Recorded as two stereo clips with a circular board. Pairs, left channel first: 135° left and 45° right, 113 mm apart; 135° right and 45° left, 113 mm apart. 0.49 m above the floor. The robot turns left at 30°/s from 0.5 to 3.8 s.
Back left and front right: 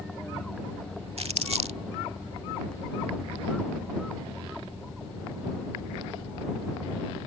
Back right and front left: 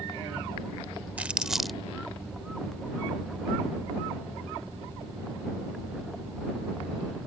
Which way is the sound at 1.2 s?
30° right.